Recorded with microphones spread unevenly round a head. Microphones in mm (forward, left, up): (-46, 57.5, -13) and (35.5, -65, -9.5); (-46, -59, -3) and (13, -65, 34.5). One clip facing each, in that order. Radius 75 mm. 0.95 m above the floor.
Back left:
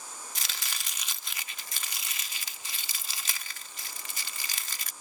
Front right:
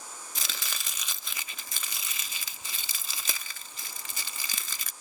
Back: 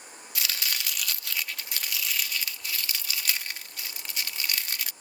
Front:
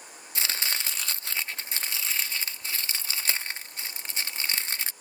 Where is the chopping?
55° right.